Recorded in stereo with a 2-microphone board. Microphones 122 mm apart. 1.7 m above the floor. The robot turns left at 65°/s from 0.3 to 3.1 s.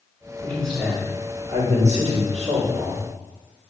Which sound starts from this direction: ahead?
A man speaking, at 0.4 s.